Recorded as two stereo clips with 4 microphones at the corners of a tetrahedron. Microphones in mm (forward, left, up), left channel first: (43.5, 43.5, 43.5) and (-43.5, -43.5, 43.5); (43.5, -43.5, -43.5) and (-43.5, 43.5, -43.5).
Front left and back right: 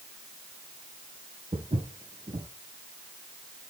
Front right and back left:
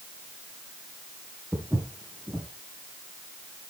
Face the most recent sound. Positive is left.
turn(degrees=-145)